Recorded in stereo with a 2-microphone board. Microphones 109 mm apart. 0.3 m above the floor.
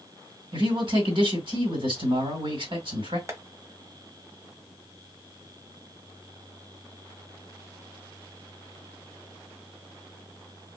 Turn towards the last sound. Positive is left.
turn(degrees=-30)  # may be behind; listen again after turning